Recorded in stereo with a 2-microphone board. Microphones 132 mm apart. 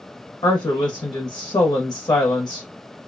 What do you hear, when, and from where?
0.4 s a woman speaking: 40° left (ahead or behind), 1.0 m